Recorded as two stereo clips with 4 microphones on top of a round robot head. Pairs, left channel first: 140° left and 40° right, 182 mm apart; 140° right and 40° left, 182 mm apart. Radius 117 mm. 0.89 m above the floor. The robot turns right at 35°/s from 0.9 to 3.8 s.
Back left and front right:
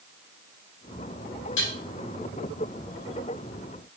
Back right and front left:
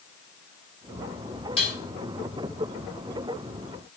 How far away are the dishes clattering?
About 4.5 m.